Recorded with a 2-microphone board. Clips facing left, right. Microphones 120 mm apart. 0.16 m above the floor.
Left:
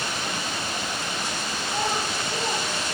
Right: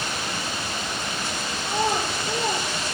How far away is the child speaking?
About 3 m.